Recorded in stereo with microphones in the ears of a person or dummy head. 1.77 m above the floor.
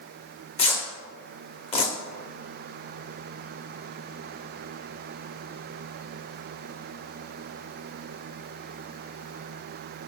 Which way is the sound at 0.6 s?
35° left (ahead or behind).